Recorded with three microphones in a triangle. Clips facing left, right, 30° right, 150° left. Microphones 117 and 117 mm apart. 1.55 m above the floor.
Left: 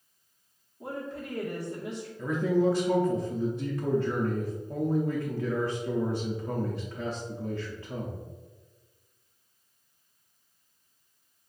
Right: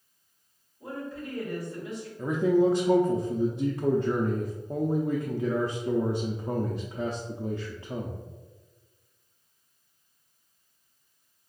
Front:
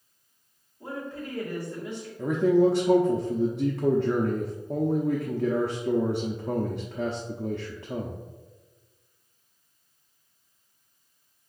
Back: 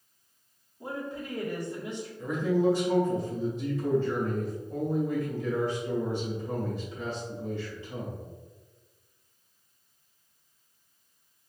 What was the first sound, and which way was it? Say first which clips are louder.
A woman speaking: even, even; 80° left.